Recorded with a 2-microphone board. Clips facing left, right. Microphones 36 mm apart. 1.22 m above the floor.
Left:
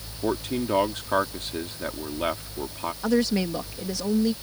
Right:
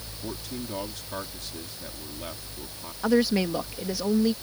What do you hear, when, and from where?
0.2 s a man speaking: 55° left (ahead or behind)
3.0 s a woman speaking: 10° right (ahead or behind)